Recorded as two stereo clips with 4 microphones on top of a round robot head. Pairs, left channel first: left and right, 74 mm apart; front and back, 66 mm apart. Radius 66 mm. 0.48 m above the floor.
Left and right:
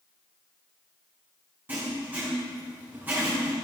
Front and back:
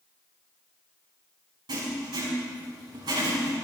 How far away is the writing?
About 6 m.